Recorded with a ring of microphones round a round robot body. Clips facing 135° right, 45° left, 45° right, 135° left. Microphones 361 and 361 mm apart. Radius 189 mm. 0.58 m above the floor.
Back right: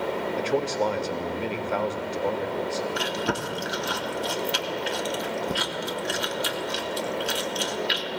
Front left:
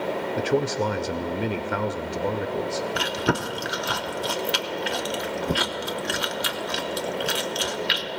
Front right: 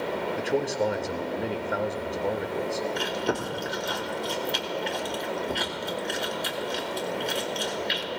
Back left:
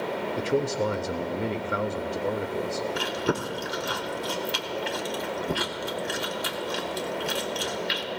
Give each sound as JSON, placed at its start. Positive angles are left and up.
{"t": 0.4, "sound": "a man speaking", "azimuth_deg": 70, "distance_m": 0.6}
{"t": 3.0, "sound": "chewing", "azimuth_deg": 60, "distance_m": 0.8}